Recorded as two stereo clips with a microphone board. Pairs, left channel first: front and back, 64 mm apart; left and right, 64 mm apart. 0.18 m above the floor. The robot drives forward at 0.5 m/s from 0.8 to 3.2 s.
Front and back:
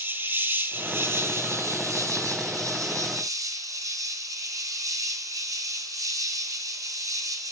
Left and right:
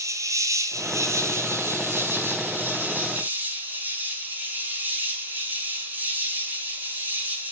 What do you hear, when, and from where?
0.0 s an insect: 120° right, 1.1 m; by 7.5 s 150° right, 2 m